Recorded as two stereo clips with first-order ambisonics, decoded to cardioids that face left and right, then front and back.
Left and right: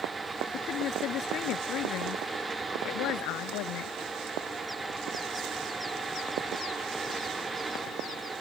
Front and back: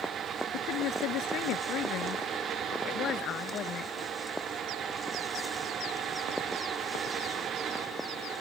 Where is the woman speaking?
40° left; by 3.9 s 65° left.